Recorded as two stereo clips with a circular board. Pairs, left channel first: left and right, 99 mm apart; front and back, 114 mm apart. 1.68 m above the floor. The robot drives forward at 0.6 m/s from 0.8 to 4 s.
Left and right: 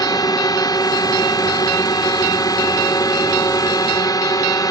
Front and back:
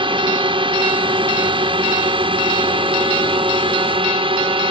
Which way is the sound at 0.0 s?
140° left.